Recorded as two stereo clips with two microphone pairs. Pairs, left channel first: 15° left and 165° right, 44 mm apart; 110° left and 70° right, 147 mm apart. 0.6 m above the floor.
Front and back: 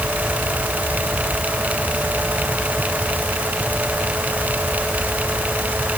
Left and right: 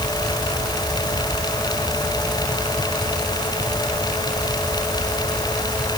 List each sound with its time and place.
Only background noise.